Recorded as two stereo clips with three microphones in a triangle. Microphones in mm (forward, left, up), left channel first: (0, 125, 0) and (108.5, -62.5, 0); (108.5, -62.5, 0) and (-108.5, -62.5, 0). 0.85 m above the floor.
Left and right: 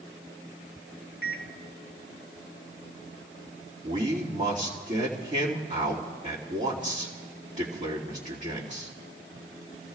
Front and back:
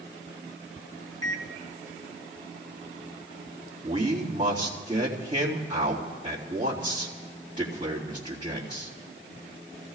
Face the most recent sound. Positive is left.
turn(degrees=-110)